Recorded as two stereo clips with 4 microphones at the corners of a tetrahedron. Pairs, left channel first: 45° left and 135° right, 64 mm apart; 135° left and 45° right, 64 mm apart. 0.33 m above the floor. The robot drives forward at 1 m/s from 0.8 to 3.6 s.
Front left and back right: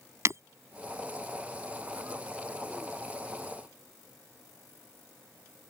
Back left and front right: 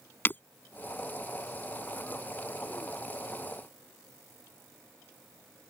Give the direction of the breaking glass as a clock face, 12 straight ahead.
6 o'clock.